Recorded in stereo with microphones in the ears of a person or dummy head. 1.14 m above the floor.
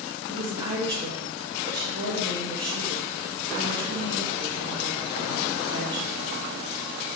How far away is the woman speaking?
About 2.0 m.